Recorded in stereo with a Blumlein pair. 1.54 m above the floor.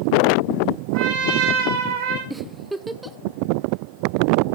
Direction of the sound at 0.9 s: 55° right.